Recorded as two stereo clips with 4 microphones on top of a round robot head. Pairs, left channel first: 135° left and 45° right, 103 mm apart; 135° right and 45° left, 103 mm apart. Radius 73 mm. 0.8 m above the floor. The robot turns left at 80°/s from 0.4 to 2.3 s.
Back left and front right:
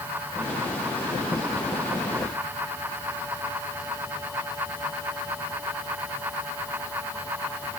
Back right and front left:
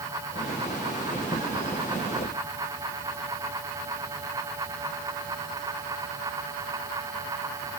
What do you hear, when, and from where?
Only background noise.